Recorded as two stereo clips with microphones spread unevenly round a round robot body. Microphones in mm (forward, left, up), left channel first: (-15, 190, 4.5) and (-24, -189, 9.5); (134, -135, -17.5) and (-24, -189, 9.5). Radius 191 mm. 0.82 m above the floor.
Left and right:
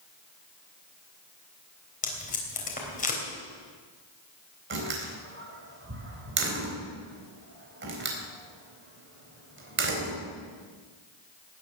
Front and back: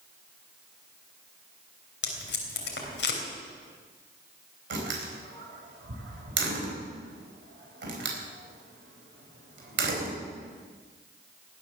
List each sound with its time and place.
2.0 s tape being pulled: 15° left, 3 m
4.7 s a door slam: 155° right, 4 m